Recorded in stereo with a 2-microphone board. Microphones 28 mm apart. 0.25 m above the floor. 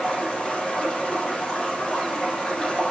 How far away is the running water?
About 6.5 m.